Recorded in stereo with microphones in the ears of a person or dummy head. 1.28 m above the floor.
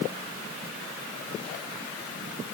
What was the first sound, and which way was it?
Only background noise.